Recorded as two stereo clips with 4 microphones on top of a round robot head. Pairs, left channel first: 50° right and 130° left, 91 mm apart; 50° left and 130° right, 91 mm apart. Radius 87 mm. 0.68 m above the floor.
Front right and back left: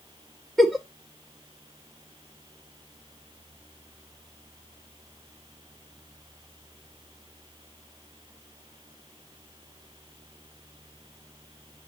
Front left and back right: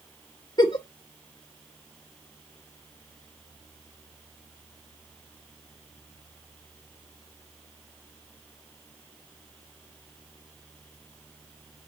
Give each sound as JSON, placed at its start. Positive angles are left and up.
{"t": 0.6, "sound": "a giggle", "azimuth_deg": 40, "distance_m": 1.3}